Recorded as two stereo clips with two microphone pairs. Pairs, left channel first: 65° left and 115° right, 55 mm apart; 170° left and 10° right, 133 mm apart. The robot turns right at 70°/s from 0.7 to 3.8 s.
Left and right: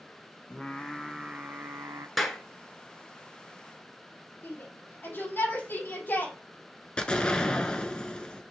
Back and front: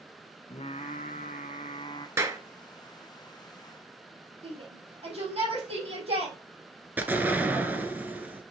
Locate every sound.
0.5 s singing: 135° left, 0.8 m; by 2.1 s 125° right, 0.8 m
2.2 s a clap: 25° right, 1.2 m; by 2.4 s 10° right, 1.2 m
4.4 s a shout: 25° left, 4.5 m
7.0 s an explosion: 35° left, 1.0 m